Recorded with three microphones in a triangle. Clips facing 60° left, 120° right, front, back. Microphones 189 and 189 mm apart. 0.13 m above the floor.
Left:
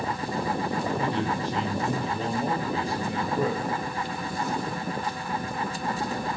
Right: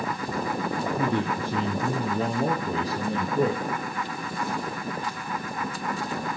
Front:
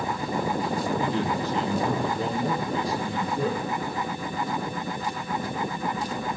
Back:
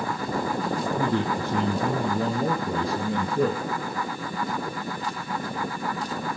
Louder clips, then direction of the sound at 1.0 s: Right 1 dB, back 1 dB; 150° right.